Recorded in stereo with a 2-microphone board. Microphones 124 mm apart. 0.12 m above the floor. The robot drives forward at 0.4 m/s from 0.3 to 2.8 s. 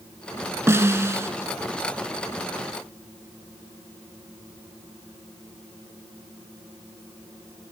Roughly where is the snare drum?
Right.